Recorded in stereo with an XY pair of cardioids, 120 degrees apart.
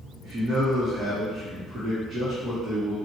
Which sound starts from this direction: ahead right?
A man speaking, at 0.2 s.